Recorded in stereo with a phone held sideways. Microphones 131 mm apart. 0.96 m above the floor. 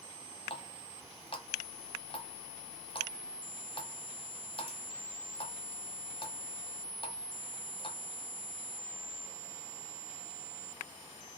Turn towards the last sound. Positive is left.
turn(degrees=40)  # may be behind; listen again after turning